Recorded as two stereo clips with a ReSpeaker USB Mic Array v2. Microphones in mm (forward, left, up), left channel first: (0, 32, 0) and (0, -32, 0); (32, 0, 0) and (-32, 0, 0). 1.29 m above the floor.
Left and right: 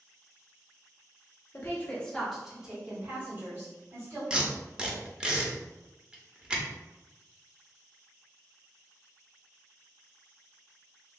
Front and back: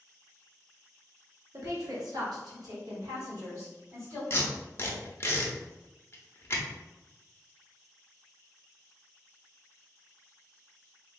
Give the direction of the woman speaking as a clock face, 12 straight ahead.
7 o'clock.